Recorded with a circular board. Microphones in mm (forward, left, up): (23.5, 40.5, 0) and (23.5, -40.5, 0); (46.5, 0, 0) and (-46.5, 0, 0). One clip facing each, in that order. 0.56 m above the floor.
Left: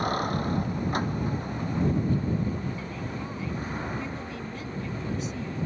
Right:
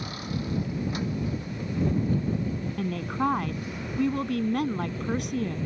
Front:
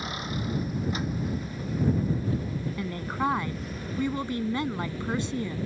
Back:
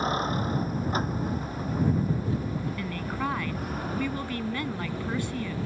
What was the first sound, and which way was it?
A vehicle, 130° left.